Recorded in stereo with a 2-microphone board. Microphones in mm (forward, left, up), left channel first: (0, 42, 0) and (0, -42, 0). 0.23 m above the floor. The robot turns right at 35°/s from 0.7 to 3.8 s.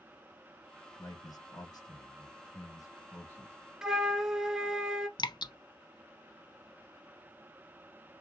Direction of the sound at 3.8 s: 5° right (ahead or behind).